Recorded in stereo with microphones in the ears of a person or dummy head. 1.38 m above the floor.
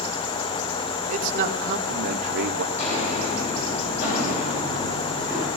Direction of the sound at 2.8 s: 45° left (ahead or behind).